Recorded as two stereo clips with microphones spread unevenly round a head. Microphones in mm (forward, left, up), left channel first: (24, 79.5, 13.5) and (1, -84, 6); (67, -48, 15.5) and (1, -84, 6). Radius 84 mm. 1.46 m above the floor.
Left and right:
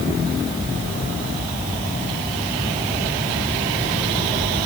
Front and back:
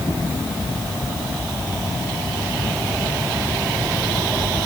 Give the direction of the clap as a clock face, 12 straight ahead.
I don't hear a clap.